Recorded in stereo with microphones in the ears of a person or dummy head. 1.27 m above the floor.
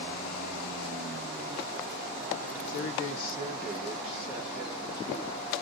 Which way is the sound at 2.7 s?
70° left (ahead or behind).